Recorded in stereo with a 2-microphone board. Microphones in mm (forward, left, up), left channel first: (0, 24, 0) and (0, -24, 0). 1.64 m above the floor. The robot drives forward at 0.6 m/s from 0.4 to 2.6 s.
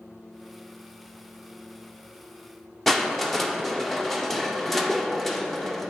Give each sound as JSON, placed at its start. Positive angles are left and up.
{"t": 2.9, "sound": "crushing", "side_deg": 5, "distance_m": 0.6}